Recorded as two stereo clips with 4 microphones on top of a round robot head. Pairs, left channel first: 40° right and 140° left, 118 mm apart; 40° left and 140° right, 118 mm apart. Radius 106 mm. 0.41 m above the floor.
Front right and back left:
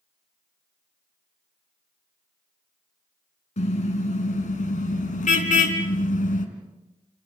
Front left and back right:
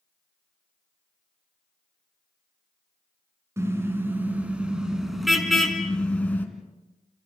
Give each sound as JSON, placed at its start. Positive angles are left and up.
{"t": 3.6, "sound": "a car horn", "azimuth_deg": -70, "distance_m": 3.5}